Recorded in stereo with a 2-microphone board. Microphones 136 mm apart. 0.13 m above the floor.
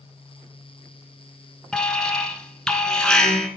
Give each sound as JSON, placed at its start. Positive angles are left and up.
{"t": 1.7, "sound": "an alarm", "side_deg": 5, "distance_m": 1.0}